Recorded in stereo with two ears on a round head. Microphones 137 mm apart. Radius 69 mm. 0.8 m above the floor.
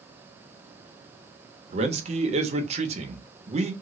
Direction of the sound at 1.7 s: 45° right (ahead or behind).